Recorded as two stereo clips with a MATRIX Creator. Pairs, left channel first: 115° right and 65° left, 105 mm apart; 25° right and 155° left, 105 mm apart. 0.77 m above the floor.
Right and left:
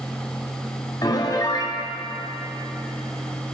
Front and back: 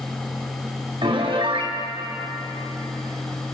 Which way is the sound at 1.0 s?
165° right.